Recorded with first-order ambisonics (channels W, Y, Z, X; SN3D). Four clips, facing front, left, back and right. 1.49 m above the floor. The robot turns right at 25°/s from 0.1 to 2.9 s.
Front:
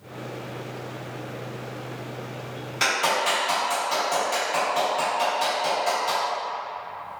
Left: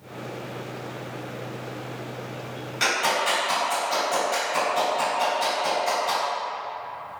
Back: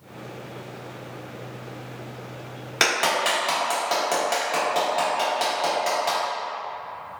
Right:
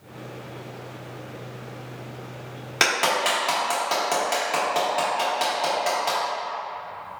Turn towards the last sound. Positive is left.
turn(degrees=-130)